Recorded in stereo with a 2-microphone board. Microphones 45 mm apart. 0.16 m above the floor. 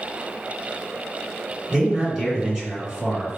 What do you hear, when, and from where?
1.7 s a man speaking: 15° right (ahead or behind), 1.9 m